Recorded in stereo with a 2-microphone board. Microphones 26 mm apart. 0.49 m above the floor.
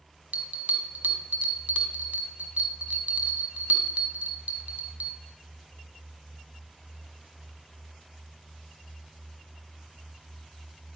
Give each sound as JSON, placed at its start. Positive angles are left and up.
{"t": 0.3, "sound": "a bell", "side_deg": -75, "distance_m": 1.3}